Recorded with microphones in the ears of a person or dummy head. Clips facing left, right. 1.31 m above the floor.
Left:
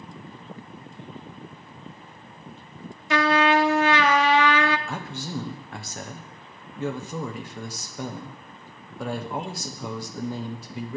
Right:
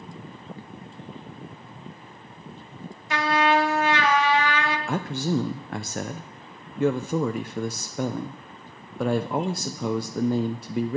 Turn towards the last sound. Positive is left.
turn(degrees=-45)  # may be behind; listen again after turning